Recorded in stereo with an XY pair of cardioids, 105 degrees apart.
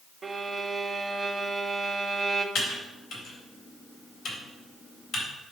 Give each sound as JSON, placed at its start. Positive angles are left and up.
{"t": 0.2, "sound": "a violin", "azimuth_deg": -25, "distance_m": 1.0}
{"t": 2.5, "sound": "typing on a keyboard", "azimuth_deg": 65, "distance_m": 3.5}